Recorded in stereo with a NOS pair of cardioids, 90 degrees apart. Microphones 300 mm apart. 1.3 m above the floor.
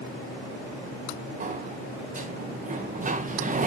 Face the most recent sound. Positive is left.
turn(degrees=-25)